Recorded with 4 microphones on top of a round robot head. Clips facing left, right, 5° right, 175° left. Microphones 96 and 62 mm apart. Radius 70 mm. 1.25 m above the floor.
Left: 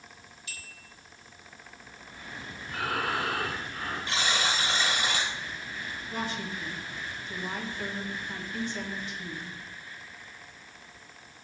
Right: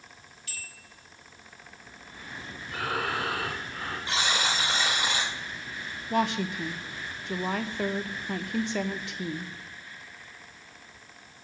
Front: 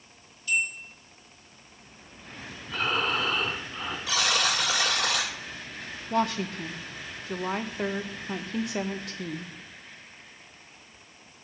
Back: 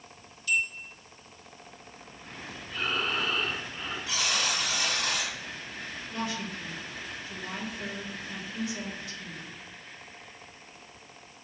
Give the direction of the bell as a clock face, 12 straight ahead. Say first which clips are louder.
Right 2 dB, front 1 dB; 7 o'clock.